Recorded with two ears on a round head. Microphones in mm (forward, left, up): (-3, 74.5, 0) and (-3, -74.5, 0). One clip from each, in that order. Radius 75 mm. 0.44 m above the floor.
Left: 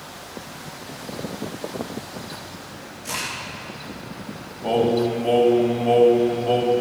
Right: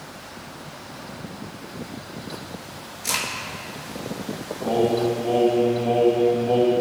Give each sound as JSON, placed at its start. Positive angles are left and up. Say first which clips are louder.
{"t": 3.0, "sound": "a crack", "louder": "right 3 dB", "side_deg": -55, "distance_m": 4.5}
{"t": 4.6, "sound": "singing", "louder": "left 1 dB", "side_deg": 55, "distance_m": 2.5}